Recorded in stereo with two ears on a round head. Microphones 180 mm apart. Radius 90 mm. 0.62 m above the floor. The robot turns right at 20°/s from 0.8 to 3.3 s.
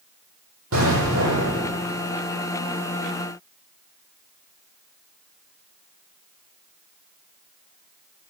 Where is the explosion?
80° right, 9.5 m; by 1.7 s 60° right (ahead or behind), 9.5 m.